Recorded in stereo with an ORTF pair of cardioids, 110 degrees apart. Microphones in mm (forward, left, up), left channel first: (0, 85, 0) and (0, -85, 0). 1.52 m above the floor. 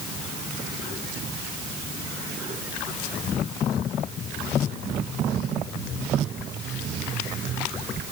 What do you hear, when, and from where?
Only background noise.